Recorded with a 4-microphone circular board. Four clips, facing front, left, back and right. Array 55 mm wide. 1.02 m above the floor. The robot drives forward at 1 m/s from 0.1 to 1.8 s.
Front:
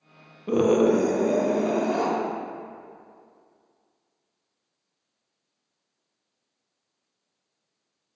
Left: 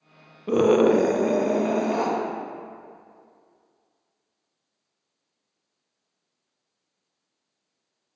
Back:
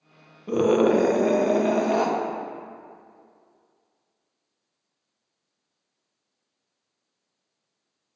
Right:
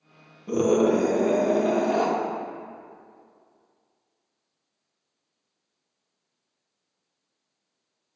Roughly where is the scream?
Ahead left.